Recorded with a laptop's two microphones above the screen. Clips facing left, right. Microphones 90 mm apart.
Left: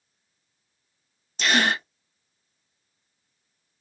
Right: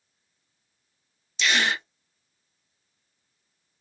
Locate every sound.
1.4 s a gasp: 40° left (ahead or behind), 0.6 m